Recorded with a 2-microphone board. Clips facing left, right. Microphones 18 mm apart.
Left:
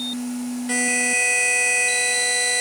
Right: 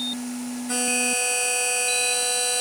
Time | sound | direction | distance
0.7 | a buzzer | 40° left (ahead or behind) | 2.5 m